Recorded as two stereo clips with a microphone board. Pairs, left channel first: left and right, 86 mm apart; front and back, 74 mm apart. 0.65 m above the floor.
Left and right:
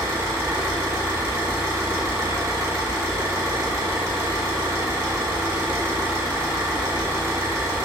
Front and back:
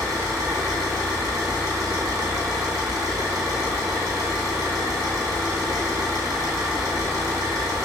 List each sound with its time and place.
0.0 s an engine running: 145° right, 1.4 m